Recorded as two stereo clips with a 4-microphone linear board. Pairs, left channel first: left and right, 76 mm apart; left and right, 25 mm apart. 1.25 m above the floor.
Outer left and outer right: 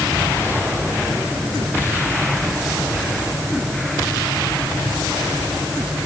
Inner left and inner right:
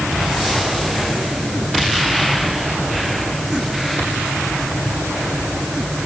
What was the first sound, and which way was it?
Only background noise.